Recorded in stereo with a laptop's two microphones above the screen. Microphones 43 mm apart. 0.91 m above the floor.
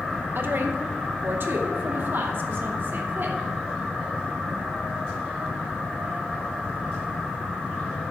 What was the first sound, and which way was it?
A woman speaking, 60° right (ahead or behind).